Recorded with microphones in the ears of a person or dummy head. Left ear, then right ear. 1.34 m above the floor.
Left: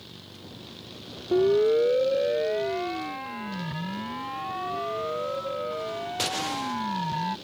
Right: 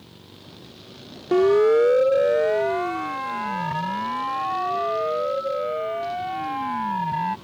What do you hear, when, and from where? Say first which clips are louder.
1.3 s a siren: right 4 dB; 55° right (ahead or behind); by 7.3 s 20° right (ahead or behind)